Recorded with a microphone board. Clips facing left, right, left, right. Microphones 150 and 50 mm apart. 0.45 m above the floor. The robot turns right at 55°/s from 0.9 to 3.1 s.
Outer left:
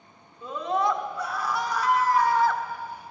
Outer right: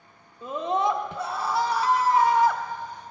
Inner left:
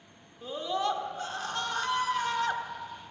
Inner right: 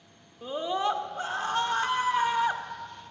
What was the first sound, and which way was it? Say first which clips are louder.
A scream: outer right 1 dB, inner right 2 dB; 20° right (ahead or behind).